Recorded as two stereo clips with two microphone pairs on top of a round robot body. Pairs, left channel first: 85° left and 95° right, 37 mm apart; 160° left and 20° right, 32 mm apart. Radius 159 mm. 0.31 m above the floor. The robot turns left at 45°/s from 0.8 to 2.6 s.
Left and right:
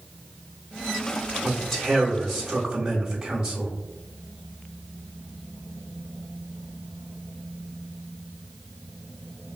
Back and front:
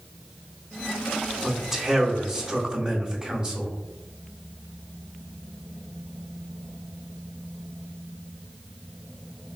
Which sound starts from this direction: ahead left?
A man speaking, at 1.4 s.